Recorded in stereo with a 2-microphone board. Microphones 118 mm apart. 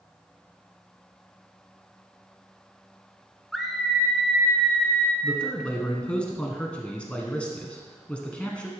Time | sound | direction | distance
3.5 | a scream | centre (ahead or behind) | 1.6 m
5.2 | a man speaking | 10° left (ahead or behind) | 1.3 m